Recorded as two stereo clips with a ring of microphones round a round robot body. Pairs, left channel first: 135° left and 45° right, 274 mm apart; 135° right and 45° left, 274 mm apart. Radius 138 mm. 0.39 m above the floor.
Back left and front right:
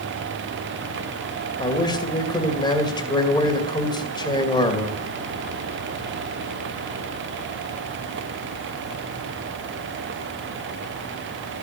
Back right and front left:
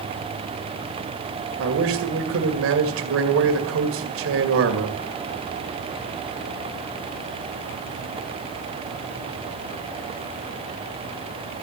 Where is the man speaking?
65° left, 2 m.